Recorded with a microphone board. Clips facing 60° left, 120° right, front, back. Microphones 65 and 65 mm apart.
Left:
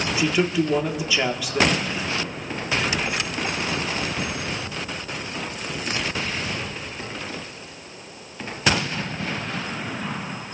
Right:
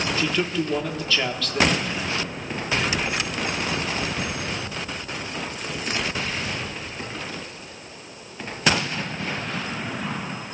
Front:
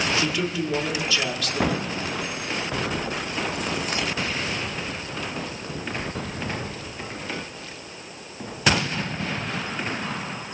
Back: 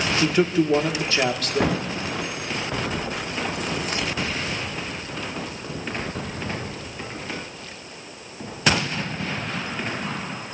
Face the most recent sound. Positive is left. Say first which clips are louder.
# left 6 dB, back 5 dB
turn(degrees=135)